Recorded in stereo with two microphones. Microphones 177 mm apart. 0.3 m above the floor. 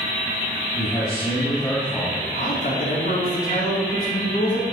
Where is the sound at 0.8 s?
40° left (ahead or behind), 2.5 m; by 2.2 s 5° right (ahead or behind), 1.8 m.